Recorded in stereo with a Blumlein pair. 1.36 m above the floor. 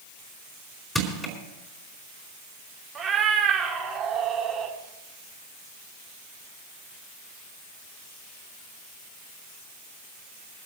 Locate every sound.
0.9 s crushing: 10° left, 4.5 m
3.0 s a cat meowing: 20° right, 2 m